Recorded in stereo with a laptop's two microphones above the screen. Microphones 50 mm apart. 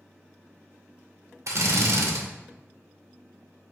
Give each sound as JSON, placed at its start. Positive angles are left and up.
{"t": 1.5, "sound": "a drill", "side_deg": -75, "distance_m": 0.7}